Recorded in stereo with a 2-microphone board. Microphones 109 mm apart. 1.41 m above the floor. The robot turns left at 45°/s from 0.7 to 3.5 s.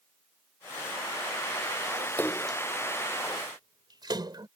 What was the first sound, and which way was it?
A splash, 15° left (ahead or behind).